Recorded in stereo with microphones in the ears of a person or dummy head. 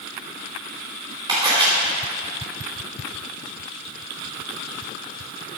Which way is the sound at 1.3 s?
30° right (ahead or behind).